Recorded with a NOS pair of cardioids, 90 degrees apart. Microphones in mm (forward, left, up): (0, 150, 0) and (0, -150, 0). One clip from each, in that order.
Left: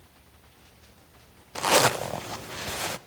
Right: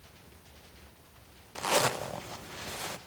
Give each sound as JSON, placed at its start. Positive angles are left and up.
{"t": 1.6, "sound": "a zipper", "azimuth_deg": 35, "distance_m": 0.8}